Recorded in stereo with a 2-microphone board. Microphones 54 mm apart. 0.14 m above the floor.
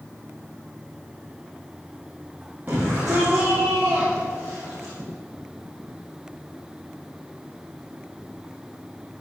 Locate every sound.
2.7 s a shout: 35° right (ahead or behind), 5.5 m